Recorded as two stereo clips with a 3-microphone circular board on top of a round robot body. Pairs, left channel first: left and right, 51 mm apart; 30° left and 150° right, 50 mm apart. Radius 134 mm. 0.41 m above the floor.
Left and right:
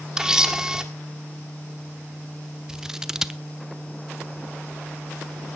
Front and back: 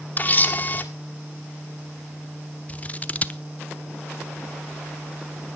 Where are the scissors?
15° right, 0.9 m.